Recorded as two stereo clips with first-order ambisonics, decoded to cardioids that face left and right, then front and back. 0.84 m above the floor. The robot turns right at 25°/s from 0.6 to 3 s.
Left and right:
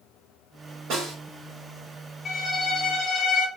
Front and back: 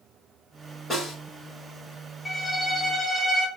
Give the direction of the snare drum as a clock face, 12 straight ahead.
3 o'clock.